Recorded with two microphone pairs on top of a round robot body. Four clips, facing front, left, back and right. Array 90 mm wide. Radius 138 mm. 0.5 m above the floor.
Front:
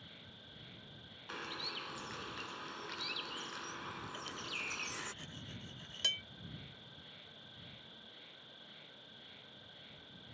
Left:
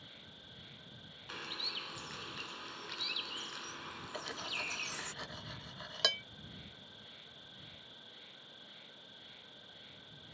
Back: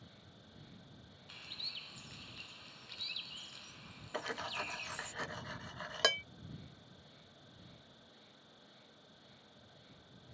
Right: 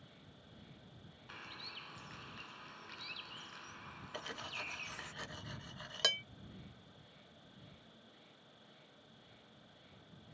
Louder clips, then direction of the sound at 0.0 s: Left 3 dB, front 2 dB; 55° left.